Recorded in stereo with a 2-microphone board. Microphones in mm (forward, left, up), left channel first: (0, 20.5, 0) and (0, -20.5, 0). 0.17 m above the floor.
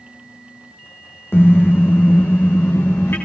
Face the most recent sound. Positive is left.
turn(degrees=60)  # may be behind; listen again after turning